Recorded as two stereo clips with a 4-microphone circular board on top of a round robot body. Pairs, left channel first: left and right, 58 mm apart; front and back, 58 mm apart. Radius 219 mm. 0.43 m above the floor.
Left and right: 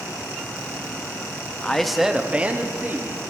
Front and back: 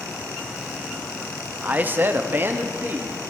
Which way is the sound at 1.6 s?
155° left.